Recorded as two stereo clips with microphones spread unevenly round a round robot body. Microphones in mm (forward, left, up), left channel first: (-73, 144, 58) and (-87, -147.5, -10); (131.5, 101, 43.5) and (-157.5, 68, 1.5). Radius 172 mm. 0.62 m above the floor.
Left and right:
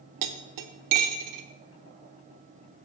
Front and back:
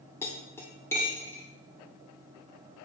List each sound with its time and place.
0.2 s cutlery clinking: 80° right, 0.7 m